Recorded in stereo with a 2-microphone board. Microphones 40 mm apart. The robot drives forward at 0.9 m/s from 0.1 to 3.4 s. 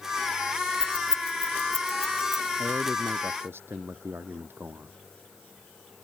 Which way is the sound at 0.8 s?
15° left (ahead or behind).